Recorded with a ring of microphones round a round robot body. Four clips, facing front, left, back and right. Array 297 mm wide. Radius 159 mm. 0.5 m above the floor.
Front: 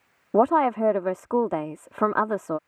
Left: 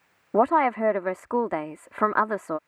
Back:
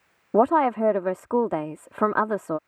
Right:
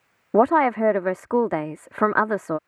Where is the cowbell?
I don't hear a cowbell.